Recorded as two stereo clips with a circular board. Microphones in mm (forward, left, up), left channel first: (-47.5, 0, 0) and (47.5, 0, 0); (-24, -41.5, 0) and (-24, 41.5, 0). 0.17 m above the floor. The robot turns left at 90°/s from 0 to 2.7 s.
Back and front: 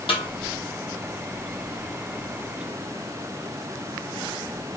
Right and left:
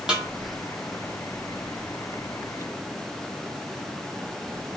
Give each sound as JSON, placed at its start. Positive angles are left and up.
{"t": 0.1, "sound": "a snare drum", "azimuth_deg": 170, "distance_m": 0.9}